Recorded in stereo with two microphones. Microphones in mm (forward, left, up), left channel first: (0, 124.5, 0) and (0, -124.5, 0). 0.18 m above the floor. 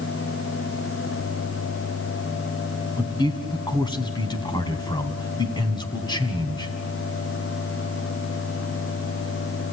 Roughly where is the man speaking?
Centre.